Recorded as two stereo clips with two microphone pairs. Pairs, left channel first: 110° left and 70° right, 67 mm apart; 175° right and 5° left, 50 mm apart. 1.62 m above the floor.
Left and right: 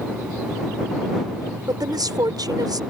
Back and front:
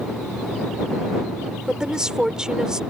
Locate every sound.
1.7 s a woman speaking: 65° right